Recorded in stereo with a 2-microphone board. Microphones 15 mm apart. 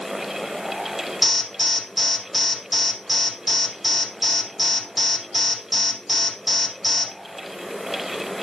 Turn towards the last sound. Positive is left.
turn(degrees=-10)  # may be behind; listen again after turning